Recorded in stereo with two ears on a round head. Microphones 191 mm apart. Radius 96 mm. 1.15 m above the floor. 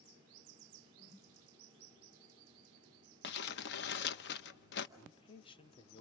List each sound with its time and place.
1.0 s a whoosh: 10° right (ahead or behind), 2.5 m
3.2 s crumpling: 55° left (ahead or behind), 0.9 m
5.0 s a man speaking: 25° left (ahead or behind), 0.7 m